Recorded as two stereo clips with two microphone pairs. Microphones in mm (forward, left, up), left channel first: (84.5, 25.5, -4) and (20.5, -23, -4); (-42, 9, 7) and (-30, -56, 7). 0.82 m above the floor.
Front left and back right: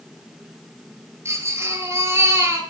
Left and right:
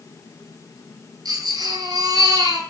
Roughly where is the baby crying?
Right.